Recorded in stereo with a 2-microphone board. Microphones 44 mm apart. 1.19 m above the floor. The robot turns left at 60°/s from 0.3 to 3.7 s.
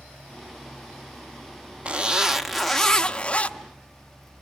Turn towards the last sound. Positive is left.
turn(degrees=110)